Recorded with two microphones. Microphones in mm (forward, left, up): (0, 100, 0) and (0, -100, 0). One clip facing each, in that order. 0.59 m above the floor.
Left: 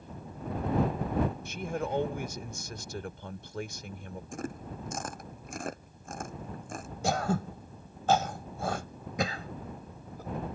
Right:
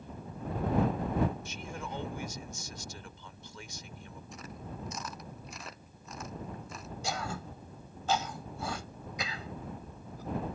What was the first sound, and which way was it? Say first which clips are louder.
A man speaking: left 8 dB; 60° left (ahead or behind).